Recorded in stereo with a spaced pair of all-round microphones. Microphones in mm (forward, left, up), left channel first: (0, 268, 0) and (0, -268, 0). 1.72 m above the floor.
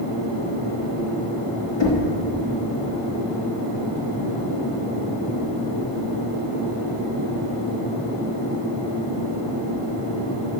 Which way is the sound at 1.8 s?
55° left (ahead or behind).